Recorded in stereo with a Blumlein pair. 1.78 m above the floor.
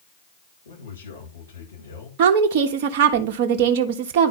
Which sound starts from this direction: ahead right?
A woman speaking, at 2.2 s.